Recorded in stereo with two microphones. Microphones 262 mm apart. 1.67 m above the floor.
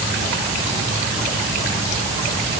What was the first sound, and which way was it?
Only background noise.